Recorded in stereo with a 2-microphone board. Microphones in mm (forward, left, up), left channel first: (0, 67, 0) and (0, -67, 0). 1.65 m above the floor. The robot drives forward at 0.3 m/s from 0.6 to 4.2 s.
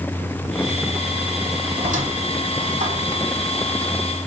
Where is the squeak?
70° right (ahead or behind), 4 m; by 3.2 s 75° right (ahead or behind), 4 m.